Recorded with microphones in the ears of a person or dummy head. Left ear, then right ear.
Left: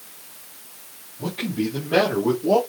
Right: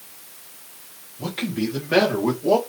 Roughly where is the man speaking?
Right.